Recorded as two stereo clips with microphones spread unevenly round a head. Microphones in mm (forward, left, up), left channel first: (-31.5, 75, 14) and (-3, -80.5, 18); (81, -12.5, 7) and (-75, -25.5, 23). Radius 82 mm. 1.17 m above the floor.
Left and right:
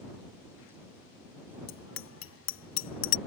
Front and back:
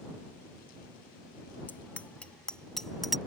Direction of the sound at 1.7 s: 85° left.